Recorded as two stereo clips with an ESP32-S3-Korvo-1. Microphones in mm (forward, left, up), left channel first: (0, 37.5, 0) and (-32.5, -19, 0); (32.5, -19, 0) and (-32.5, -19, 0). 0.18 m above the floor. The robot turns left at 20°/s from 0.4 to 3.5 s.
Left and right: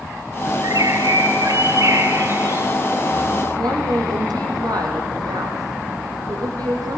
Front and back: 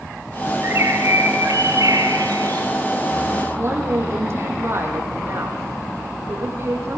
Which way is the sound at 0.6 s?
125° right.